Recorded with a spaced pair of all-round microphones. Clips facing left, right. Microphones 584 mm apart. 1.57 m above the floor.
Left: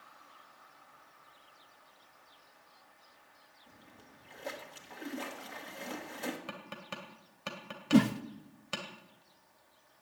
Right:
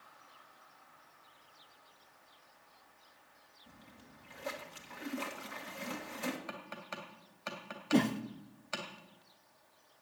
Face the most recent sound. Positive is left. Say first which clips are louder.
# left 4 dB
turn(degrees=35)  # may be behind; listen again after turning